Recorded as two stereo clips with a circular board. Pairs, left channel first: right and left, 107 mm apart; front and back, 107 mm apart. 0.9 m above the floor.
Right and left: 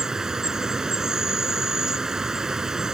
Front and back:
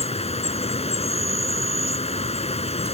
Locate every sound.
0.0 s an insect: 5° left